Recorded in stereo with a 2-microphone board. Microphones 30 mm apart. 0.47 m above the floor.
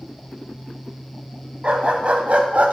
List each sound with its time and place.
1.6 s a dog barking: 45° right (ahead or behind), 1.3 m; by 2.7 s 65° right (ahead or behind), 1.0 m